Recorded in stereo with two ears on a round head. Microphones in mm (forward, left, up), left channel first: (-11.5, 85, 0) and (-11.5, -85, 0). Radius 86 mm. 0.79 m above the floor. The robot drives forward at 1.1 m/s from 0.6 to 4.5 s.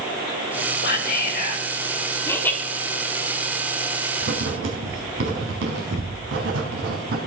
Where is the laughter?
10° left (ahead or behind), 1.9 m.